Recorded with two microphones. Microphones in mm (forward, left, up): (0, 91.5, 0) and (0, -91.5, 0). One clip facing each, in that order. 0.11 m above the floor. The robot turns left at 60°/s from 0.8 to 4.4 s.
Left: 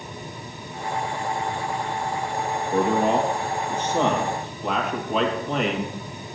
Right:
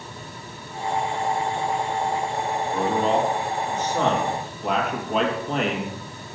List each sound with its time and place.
2.7 s a man speaking: 60° left (ahead or behind), 3 m; by 6.0 s centre (ahead or behind), 3 m